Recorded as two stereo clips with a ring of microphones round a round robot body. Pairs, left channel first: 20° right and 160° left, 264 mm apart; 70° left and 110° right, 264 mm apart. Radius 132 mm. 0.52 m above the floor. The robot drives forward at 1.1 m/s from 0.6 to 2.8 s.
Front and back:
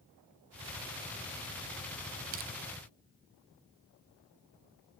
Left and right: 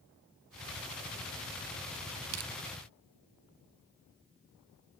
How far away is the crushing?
About 0.7 m.